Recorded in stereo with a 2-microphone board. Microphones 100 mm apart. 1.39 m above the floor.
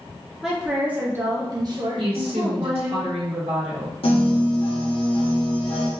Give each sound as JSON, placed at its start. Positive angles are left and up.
{"t": 0.4, "sound": "a woman speaking", "side_deg": -5, "distance_m": 1.3}
{"t": 2.0, "sound": "a woman speaking", "side_deg": -75, "distance_m": 1.4}
{"t": 4.0, "sound": "a piano", "side_deg": 70, "distance_m": 1.1}